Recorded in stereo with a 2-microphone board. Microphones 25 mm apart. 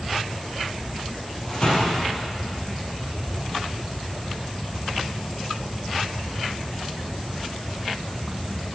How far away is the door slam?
About 3 m.